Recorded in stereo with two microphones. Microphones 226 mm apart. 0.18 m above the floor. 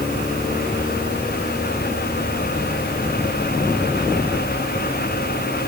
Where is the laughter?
No laughter in this recording.